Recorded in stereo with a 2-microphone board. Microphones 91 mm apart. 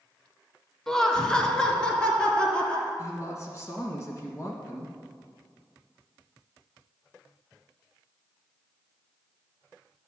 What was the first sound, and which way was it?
Laughter, 5° left (ahead or behind).